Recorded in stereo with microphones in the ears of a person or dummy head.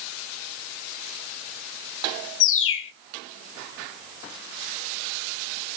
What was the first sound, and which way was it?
A bird, 70° left (ahead or behind).